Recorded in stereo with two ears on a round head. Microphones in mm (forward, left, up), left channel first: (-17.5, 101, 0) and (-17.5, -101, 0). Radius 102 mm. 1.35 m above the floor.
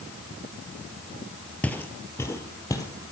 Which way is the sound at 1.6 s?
5° left (ahead or behind).